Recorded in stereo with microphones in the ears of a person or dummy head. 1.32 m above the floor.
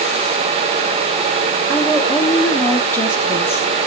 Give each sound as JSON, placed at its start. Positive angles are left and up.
{"t": 1.7, "sound": "a woman speaking", "side_deg": 5, "distance_m": 2.0}